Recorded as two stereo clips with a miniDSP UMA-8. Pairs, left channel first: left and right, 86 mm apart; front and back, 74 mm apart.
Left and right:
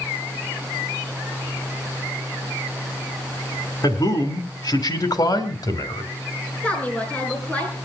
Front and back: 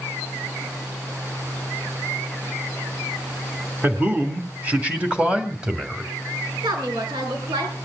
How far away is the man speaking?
About 3 m.